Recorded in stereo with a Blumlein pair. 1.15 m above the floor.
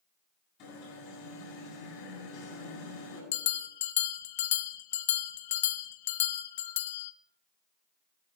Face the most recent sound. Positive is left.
turn(degrees=55)